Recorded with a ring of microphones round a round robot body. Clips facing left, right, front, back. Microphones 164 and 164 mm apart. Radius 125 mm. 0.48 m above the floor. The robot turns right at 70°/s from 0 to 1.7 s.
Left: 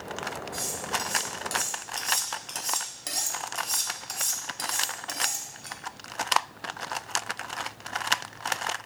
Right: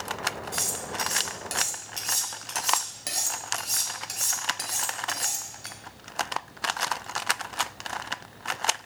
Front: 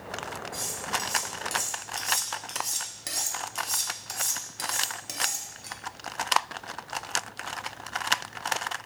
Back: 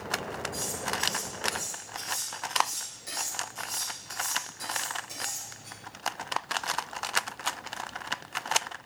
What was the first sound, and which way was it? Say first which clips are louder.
Cutlery clinking: left 1 dB, back 1 dB; 90° right.